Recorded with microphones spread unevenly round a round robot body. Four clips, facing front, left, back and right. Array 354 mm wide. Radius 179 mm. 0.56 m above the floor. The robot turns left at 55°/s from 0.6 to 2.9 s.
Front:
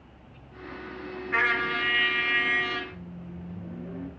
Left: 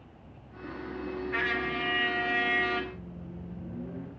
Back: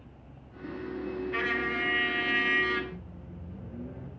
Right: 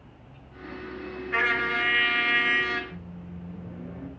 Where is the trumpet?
35° right, 1.6 m; by 2.8 s 115° right, 1.6 m.